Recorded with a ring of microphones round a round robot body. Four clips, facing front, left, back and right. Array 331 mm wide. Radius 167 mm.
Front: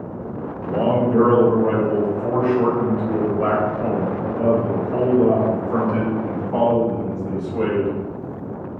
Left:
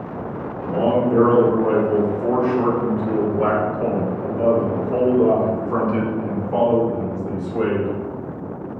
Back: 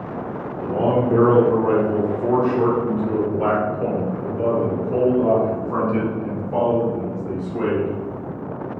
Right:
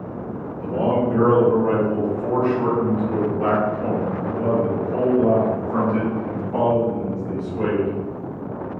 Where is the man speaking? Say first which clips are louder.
Left 2 dB, even; 165° left, 2.5 m; by 7.9 s 105° left, 5 m.